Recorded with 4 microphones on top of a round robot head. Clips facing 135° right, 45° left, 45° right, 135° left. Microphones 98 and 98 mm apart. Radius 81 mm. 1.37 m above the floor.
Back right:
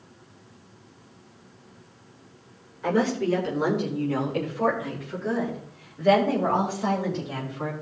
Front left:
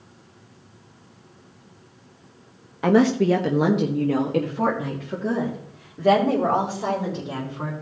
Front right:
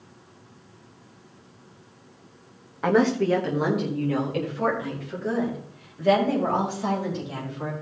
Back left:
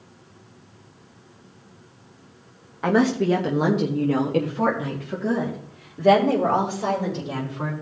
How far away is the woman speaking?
About 1.1 m.